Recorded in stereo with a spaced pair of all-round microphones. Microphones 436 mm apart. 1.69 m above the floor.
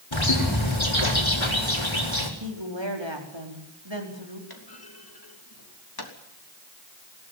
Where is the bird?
80° left, 4 m.